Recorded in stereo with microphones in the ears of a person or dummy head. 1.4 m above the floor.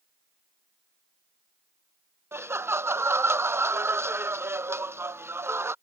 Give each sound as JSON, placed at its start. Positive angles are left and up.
{"t": 2.3, "sound": "laughter", "side_deg": -20}